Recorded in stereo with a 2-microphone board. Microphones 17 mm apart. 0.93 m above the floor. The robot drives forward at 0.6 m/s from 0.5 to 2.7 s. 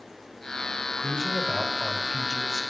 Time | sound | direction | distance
1.0 | a man speaking | 25° right (ahead or behind) | 5.5 m